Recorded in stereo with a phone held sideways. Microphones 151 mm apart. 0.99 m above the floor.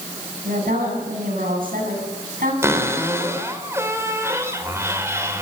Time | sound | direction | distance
0.5 | a woman speaking | 80° right | 9 m
2.6 | a cupboard door | 20° right (ahead or behind) | 3.5 m